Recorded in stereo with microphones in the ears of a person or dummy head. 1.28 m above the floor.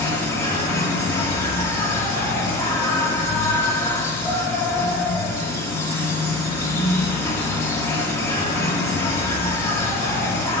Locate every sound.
0.0 s an insect: 15° left (ahead or behind), 1.9 m